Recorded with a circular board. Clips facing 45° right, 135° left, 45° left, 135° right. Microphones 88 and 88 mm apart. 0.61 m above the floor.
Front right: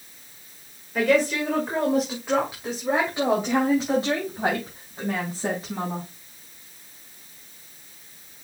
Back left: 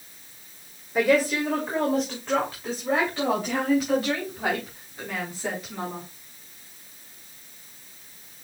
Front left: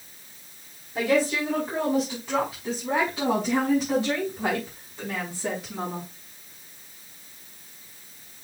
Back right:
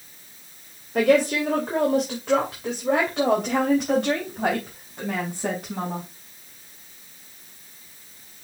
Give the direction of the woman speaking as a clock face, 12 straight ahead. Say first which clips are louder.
Even, back right 4 dB; 5 o'clock.